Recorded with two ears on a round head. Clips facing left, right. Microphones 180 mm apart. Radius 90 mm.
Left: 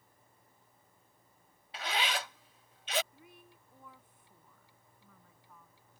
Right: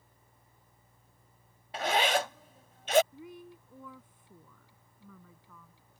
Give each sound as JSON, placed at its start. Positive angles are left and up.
{"t": 1.7, "sound": "a zipper", "side_deg": -40}
{"t": 3.1, "sound": "a woman speaking", "side_deg": -70}